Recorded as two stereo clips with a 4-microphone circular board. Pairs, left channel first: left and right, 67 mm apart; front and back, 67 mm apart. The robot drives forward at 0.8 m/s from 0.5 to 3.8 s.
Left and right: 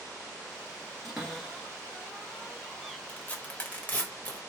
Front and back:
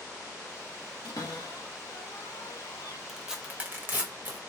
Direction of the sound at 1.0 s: Straight ahead.